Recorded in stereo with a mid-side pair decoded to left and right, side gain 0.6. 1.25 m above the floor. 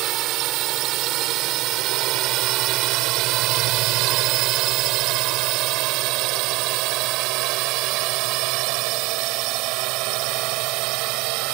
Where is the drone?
65° right; by 11.5 s 75° right.